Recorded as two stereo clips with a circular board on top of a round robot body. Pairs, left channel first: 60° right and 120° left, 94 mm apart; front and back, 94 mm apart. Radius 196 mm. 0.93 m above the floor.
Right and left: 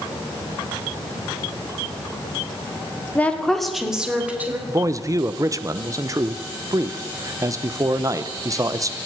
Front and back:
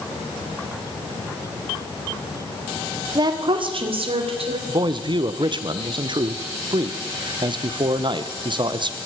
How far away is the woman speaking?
About 2 m.